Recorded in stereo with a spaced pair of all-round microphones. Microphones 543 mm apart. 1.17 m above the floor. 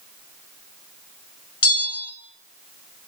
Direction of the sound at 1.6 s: 30° left (ahead or behind).